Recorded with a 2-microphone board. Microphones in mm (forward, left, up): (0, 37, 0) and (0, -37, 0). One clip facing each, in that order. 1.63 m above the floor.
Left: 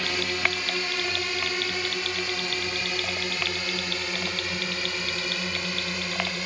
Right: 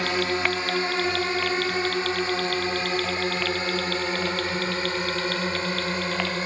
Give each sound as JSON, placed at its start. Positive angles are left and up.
{"t": 0.0, "sound": "a drone", "side_deg": -30}